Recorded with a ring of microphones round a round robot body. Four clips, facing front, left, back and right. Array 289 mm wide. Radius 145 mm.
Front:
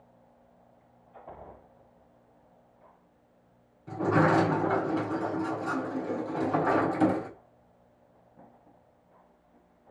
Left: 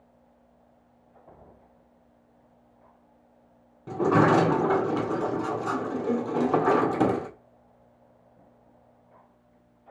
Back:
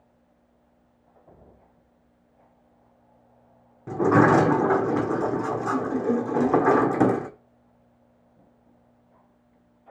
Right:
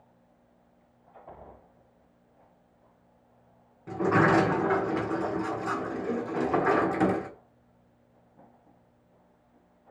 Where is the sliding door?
160° left, 1.5 m.